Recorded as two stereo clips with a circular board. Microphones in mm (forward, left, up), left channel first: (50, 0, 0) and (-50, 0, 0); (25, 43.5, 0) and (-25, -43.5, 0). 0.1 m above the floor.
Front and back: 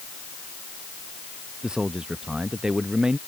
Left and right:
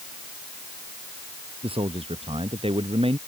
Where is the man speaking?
95° right.